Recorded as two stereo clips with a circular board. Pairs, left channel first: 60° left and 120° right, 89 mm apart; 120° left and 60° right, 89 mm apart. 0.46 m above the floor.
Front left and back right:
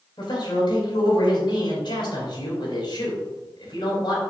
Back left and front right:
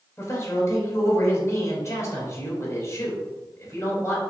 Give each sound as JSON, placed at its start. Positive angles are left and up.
{"t": 0.2, "sound": "a man speaking", "azimuth_deg": 70, "distance_m": 3.0}